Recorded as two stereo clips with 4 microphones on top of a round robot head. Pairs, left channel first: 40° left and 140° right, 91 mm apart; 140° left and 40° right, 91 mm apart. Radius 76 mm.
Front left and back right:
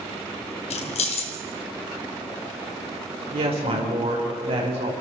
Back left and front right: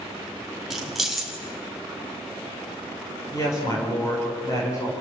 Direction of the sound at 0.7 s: 50° left.